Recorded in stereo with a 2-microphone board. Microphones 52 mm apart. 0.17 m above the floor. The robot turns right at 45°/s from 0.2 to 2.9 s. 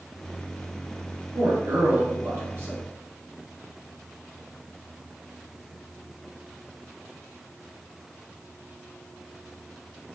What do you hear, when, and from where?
1.4 s a man speaking: 115° right, 2 m; by 2.8 s 50° right, 2 m